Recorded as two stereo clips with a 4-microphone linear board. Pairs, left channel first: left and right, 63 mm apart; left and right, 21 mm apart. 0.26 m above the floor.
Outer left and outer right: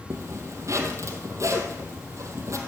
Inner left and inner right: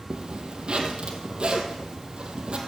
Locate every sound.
0.1 s a zipper: 50° right (ahead or behind), 2 m